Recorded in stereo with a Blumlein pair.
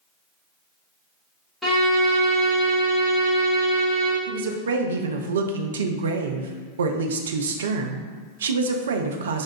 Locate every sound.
1.6 s a violin: 5° left, 1.3 m
4.3 s a woman speaking: 65° right, 0.5 m